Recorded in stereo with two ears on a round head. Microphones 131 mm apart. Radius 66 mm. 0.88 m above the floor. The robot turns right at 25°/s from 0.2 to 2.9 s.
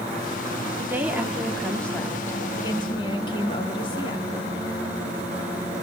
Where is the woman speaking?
15° right, 2 m; by 4.3 s 35° left, 2 m.